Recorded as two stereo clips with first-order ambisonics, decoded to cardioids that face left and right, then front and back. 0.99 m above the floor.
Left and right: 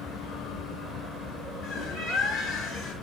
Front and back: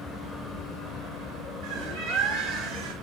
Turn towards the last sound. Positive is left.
turn(degrees=155)